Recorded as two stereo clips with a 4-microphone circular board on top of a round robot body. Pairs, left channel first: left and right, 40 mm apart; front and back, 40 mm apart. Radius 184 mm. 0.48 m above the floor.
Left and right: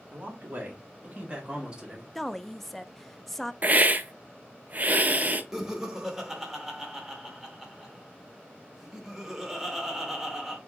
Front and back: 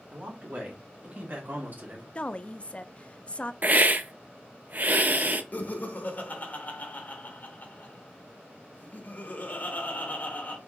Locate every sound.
0.1 s a man speaking: 135° right, 2.5 m; by 2.0 s 165° right, 1.8 m
2.1 s a woman speaking: 10° left, 0.7 m
3.6 s a hiss: 140° right, 0.6 m
5.5 s laughter: 15° right, 1.7 m